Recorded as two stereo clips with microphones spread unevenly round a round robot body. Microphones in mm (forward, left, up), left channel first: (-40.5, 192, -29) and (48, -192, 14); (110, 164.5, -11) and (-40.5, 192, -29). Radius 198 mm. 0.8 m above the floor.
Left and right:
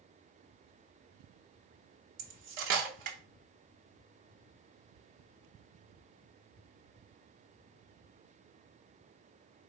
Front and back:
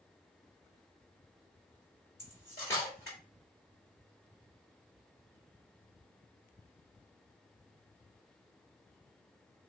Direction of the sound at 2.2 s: 95° right.